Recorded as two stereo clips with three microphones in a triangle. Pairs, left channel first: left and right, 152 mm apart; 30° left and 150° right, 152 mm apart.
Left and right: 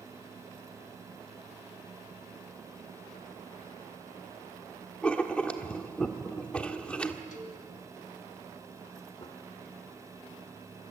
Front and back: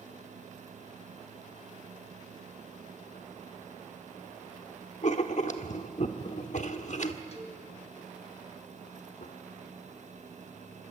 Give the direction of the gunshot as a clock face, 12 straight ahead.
11 o'clock.